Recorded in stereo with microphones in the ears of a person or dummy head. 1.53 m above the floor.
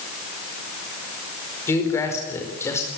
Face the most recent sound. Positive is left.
turn(degrees=20)  # may be behind; listen again after turning